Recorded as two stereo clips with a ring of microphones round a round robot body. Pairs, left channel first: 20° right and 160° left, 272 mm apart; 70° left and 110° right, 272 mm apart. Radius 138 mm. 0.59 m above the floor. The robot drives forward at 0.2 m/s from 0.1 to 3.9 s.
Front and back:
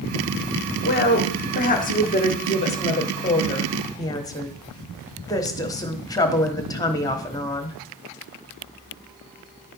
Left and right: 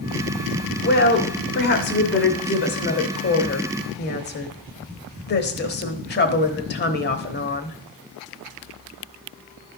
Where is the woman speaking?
25° left, 1.5 m; by 7.8 s 45° left, 1.1 m.